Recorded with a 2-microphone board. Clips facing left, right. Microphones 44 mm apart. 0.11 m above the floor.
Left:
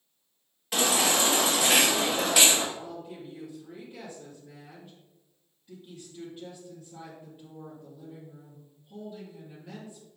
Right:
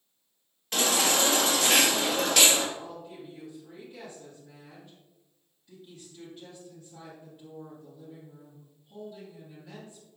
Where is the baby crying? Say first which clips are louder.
Left 1 dB; 10° left (ahead or behind), 1.8 m.